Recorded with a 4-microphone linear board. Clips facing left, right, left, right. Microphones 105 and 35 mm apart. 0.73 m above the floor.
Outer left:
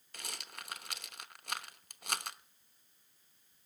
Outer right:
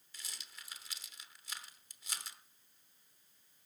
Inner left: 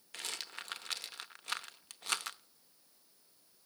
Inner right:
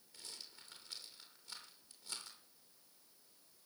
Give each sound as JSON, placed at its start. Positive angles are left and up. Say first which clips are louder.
{"t": 0.1, "sound": "a rattle", "louder": "outer left 8 dB, inner left 12 dB", "side_deg": 65, "distance_m": 0.8}